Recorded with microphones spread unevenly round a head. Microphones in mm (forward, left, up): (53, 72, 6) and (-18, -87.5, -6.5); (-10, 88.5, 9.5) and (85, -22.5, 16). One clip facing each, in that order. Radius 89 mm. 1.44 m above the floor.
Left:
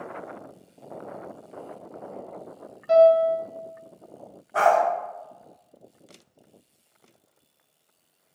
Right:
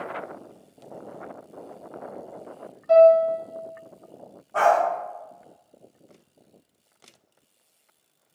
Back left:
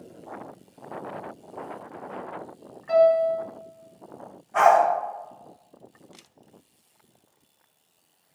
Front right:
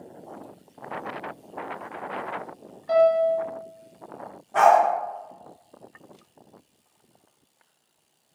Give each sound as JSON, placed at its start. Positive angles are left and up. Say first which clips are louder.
{"t": 2.9, "sound": "a piano", "louder": "right 2 dB, even", "azimuth_deg": 5, "distance_m": 1.4}
{"t": 4.5, "sound": "a dog barking", "louder": "even, front right 1 dB", "azimuth_deg": 0, "distance_m": 1.4}